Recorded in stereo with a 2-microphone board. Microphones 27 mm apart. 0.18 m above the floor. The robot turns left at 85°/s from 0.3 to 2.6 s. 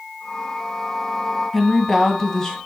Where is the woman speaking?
5° left (ahead or behind), 1.2 m; by 2.6 s 20° left (ahead or behind), 1.2 m.